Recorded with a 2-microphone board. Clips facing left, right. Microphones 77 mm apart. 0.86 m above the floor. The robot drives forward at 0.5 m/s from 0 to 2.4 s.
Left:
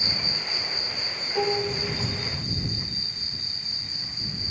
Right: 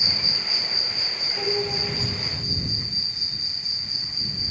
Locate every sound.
0.0 s an insect: 15° right (ahead or behind), 1.0 m; by 4.5 s 5° right (ahead or behind), 2 m
1.4 s dishes clattering: 85° left, 3 m